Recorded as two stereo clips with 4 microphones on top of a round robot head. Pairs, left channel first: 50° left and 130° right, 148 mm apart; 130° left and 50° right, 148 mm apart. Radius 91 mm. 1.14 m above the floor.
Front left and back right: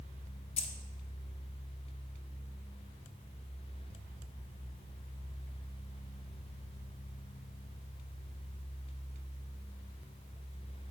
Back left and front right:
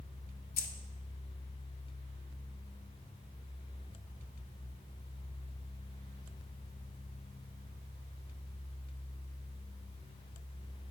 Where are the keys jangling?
100° left, 0.7 m.